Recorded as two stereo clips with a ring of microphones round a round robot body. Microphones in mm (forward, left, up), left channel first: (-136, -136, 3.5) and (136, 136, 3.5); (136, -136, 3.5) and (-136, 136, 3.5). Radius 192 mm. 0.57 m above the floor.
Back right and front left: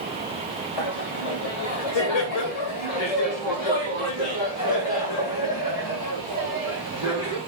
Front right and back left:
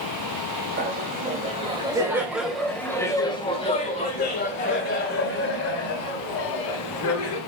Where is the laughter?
160° right, 3 m; by 7.4 s 85° right, 5 m.